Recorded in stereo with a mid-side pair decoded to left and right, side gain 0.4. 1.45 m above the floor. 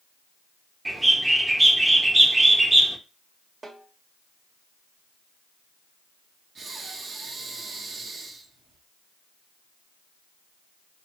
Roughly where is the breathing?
Ahead right.